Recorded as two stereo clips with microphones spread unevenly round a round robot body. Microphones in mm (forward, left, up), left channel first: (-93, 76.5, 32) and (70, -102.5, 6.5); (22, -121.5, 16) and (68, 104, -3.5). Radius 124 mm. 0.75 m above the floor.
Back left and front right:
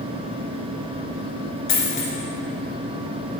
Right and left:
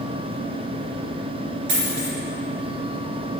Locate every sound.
1.7 s a dropped coin: 110° left, 2.0 m